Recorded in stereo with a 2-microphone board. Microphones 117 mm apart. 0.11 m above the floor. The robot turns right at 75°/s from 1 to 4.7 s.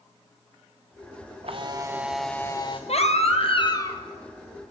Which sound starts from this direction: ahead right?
A camera shutter, at 1.4 s.